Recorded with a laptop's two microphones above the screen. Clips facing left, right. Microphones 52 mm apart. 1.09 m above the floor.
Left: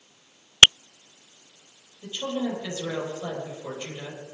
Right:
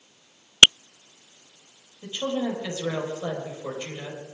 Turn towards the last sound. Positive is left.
turn(degrees=-20)  # may be behind; listen again after turning